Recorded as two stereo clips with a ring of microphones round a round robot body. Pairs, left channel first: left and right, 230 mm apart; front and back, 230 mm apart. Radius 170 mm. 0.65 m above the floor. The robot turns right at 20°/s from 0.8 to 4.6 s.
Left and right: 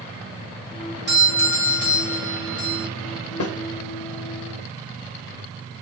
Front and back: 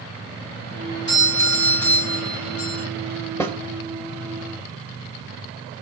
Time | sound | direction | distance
1.1 | a doorbell | 50° right | 3.5 m
3.4 | a snare drum | 80° left | 1.0 m